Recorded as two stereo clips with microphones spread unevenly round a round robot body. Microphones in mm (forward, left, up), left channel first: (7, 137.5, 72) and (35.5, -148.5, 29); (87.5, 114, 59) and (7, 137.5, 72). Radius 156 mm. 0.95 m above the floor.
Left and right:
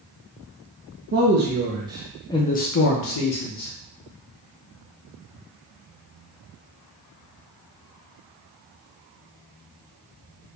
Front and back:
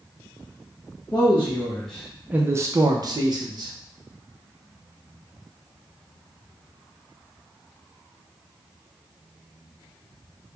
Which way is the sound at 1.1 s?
60° right.